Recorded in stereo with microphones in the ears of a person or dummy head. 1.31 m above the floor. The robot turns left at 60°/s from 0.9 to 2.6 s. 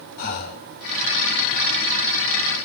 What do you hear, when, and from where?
0.2 s breathing: 45° left (ahead or behind), 1.4 m